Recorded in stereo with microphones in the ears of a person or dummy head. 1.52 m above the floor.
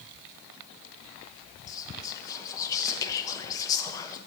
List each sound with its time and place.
1.7 s whispering: 20° left (ahead or behind), 0.8 m